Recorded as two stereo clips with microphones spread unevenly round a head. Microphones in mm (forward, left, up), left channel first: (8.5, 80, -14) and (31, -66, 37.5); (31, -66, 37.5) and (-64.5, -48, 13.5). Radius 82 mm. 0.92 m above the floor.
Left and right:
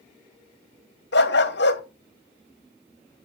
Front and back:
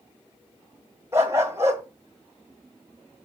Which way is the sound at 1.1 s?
90° left.